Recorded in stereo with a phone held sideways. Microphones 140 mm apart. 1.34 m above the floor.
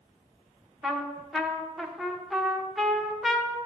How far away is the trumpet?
About 1.0 m.